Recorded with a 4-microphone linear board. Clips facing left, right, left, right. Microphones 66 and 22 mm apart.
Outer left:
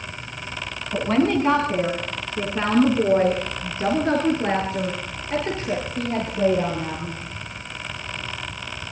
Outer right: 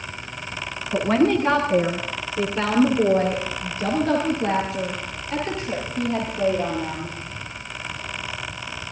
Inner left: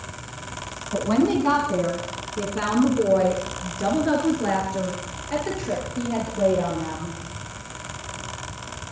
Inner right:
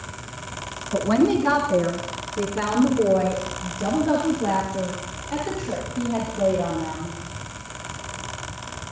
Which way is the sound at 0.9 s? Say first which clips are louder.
Outer right 1 dB, inner right 1 dB; 5° right (ahead or behind).